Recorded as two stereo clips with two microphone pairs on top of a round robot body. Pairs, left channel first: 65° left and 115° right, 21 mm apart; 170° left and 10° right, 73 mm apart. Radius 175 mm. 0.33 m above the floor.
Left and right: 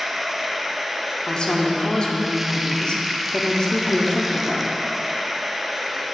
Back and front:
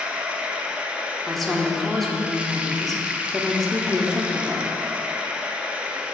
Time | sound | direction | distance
0.0 | running water | 45° right | 0.9 m
1.3 | a woman speaking | 75° left | 1.3 m